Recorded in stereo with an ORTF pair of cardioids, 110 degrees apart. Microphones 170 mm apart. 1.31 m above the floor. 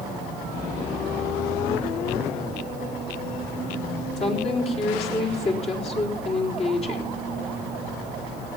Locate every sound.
4.2 s a woman speaking: 40° left, 4 m